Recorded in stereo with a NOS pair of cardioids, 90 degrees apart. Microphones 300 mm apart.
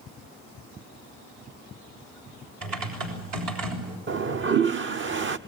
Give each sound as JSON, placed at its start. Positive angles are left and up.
{"t": 2.6, "sound": "typing on a keyboard", "azimuth_deg": -70, "distance_m": 6.5}
{"t": 4.1, "sound": "a toilet flushing", "azimuth_deg": -40, "distance_m": 0.9}